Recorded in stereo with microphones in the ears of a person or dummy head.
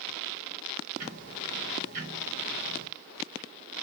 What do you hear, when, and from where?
1.0 s ticking: 45° right (ahead or behind), 1.9 m